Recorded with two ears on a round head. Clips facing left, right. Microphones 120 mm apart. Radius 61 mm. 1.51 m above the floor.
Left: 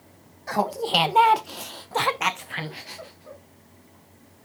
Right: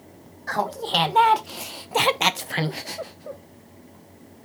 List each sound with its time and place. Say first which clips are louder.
0.5 s laughter: left 1 dB; 15° left (ahead or behind), 1.4 m; by 3.4 s 50° right (ahead or behind), 0.9 m